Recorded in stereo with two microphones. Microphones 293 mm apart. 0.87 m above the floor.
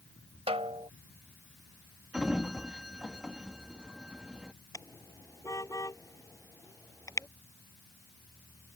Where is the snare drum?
20° right (ahead or behind).